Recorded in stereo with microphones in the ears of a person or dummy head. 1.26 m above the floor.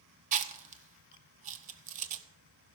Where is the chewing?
40° right (ahead or behind), 1.3 m.